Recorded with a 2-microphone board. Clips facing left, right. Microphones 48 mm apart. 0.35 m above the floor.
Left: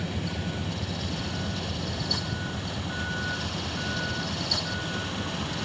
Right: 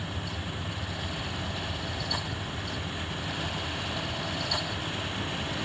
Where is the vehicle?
80° left; by 5.7 s 70° left (ahead or behind).